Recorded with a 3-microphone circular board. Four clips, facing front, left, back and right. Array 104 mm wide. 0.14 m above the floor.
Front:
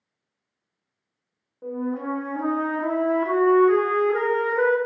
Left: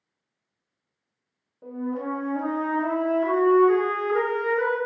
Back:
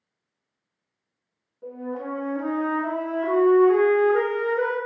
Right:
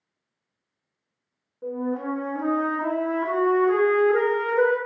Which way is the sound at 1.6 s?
40° right.